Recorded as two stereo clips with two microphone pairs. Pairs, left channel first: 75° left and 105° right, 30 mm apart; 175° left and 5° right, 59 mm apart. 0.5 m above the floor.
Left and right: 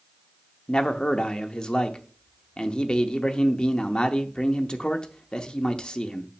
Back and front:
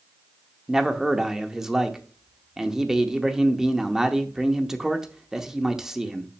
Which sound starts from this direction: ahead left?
A man speaking, at 0.7 s.